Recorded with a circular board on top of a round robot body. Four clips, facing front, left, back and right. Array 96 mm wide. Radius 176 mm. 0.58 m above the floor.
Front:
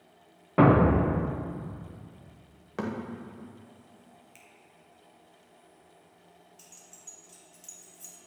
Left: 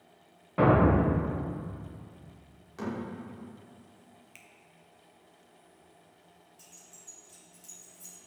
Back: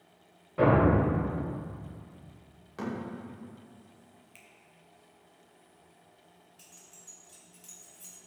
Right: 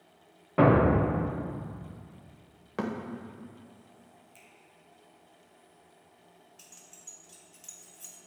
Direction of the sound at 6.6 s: 105° right.